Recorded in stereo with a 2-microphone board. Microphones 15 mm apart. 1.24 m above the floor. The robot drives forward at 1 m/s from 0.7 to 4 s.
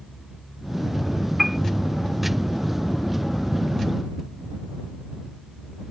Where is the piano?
10° right (ahead or behind).